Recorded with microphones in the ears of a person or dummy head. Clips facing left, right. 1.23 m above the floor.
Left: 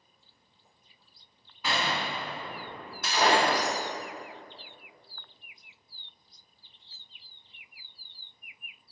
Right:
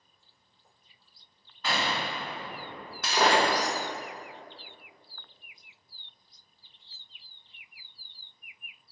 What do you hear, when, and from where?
1.6 s a gunshot: 10° left (ahead or behind), 0.8 m
3.0 s breaking glass: 65° right (ahead or behind), 0.7 m